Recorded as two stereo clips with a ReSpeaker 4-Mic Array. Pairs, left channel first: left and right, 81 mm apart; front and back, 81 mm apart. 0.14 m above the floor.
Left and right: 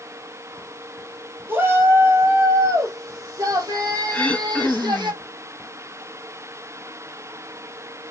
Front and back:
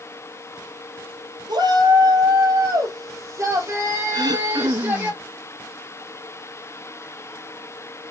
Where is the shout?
150° right, 3 m; by 5.1 s 115° right, 4 m.